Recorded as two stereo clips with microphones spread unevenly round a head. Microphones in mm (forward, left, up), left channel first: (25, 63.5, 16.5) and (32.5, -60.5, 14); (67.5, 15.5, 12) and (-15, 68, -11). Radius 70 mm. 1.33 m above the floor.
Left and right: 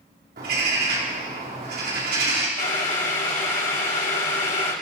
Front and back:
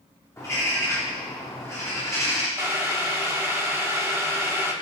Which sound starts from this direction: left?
Boiling, at 2.6 s.